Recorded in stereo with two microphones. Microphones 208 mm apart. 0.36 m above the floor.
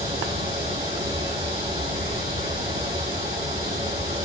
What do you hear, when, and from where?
0.0 s running water: 20° right (ahead or behind), 1.7 m